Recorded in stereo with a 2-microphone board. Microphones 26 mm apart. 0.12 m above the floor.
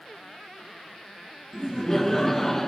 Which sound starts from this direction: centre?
Laughter, at 1.5 s.